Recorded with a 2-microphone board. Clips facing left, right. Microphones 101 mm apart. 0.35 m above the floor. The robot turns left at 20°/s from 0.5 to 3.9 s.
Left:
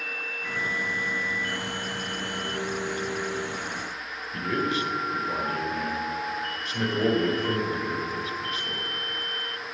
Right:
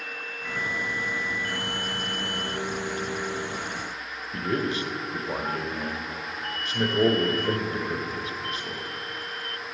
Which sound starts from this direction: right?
A man speaking, at 4.3 s.